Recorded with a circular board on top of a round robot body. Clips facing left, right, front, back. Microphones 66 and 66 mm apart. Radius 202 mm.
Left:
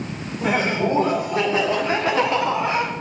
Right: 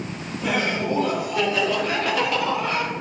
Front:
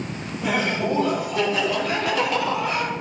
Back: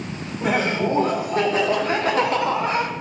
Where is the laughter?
140° left, 3 m; by 2.9 s 145° left, 1.8 m.